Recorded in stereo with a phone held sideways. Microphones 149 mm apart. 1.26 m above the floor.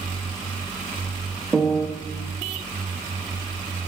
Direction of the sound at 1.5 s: Centre (ahead or behind).